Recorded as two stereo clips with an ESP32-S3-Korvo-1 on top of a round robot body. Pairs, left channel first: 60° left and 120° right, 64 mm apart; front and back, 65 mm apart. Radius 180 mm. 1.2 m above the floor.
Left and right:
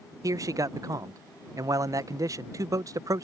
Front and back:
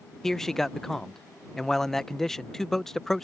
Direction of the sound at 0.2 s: 85° right.